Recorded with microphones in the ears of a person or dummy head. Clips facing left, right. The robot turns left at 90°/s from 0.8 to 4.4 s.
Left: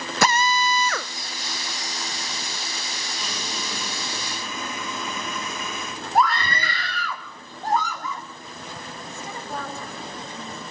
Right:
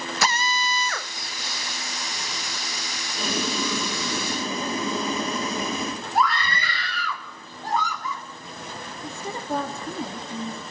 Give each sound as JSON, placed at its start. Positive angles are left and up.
{"t": 0.2, "sound": "a drill", "side_deg": 40, "distance_m": 1.1}
{"t": 3.2, "sound": "boiling", "azimuth_deg": -30, "distance_m": 1.4}
{"t": 6.2, "sound": "a scream", "side_deg": 40, "distance_m": 4.0}
{"t": 9.0, "sound": "a woman speaking", "side_deg": -35, "distance_m": 3.0}